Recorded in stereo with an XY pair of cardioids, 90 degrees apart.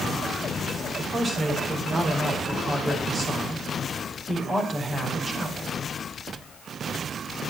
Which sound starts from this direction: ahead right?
A man speaking, at 1.0 s.